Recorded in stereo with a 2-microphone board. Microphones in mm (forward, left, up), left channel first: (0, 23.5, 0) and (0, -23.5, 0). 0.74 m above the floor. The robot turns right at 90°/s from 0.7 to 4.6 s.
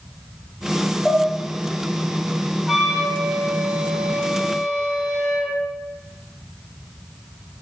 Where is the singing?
No singing in this recording.